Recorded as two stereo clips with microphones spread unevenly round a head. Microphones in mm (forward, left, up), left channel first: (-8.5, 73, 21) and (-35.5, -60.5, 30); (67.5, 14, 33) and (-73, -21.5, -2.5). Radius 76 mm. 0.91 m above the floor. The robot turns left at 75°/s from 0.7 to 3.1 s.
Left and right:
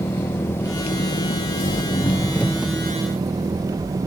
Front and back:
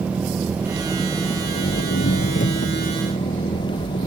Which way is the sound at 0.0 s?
135° left.